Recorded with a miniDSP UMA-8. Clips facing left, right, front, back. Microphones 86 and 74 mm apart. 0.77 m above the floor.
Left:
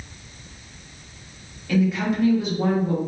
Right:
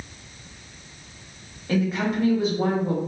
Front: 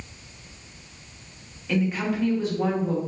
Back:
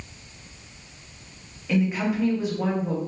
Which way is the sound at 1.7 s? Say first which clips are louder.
Left 2 dB, back 1 dB; 95° right.